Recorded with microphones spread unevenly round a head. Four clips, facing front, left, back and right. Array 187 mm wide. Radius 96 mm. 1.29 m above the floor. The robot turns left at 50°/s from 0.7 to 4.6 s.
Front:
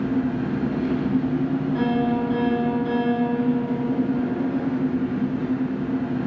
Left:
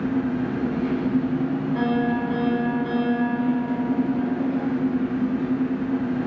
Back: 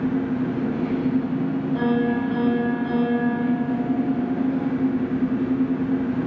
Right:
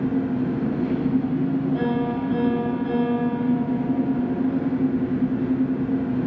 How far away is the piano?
About 1.3 m.